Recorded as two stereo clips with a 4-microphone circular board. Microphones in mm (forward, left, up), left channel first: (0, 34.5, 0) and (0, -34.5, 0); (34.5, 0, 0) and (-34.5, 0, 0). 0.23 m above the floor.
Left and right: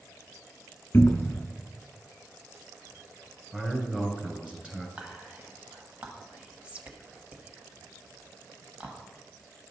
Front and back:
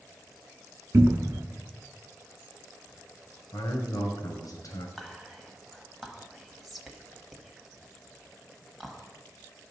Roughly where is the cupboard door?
Behind left.